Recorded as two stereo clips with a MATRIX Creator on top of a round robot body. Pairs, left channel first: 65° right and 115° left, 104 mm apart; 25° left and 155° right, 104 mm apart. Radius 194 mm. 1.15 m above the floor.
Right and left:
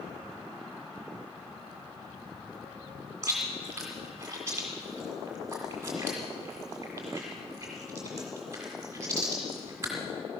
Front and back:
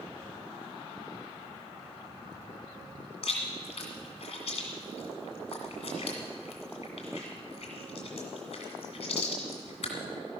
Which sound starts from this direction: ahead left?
Chewing, at 3.2 s.